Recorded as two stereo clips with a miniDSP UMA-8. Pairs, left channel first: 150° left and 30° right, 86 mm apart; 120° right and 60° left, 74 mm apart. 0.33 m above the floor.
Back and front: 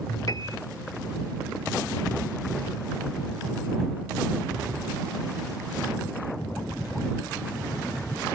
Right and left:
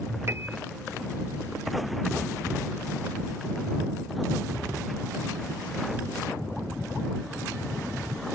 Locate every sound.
0.3 s a piano: 115° left